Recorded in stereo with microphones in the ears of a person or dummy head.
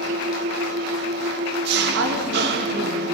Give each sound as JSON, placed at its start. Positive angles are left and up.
{"t": 0.0, "sound": "an engine running", "side_deg": -70, "distance_m": 1.6}
{"t": 1.9, "sound": "a woman speaking", "side_deg": -55, "distance_m": 3.5}